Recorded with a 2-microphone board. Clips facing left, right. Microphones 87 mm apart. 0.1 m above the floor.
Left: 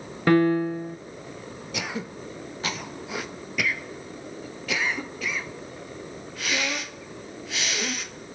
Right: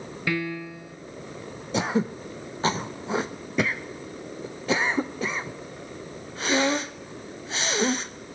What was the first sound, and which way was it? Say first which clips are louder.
A piano: left 11 dB; 45° left (ahead or behind).